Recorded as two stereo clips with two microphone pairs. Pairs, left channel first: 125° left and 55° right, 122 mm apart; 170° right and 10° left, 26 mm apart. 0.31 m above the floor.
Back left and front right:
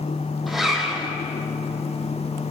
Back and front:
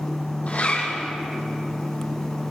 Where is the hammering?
I don't hear hammering.